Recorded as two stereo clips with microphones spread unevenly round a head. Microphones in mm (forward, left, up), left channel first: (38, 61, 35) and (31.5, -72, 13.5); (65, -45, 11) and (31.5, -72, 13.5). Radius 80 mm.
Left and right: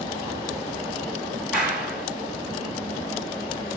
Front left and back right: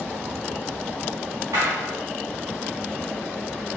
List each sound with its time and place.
1.5 s a clap: straight behind, 5 m